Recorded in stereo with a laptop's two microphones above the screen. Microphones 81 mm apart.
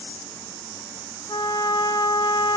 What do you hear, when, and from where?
1.3 s a trumpet: 80° left, 3 m